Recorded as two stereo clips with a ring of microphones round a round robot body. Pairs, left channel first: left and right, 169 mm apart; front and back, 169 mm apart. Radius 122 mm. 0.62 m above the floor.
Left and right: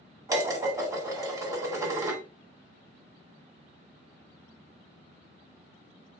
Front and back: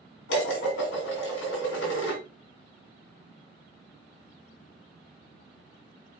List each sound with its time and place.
0.3 s dishes clattering: 15° right, 2 m